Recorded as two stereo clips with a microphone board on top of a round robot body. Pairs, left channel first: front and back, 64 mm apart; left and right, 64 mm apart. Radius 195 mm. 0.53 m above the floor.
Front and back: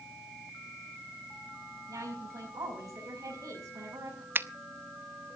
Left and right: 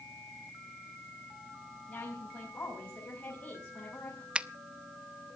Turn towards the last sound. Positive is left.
turn(degrees=-155)